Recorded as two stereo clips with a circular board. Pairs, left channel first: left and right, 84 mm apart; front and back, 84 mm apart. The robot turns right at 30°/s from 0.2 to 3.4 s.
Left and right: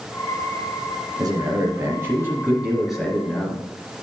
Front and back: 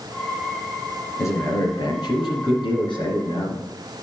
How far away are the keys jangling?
I don't hear keys jangling.